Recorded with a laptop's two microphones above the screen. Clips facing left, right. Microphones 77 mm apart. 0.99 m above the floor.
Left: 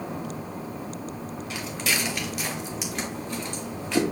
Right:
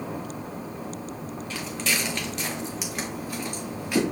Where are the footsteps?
15° left (ahead or behind), 1.4 m; by 4.0 s 10° right (ahead or behind), 1.5 m.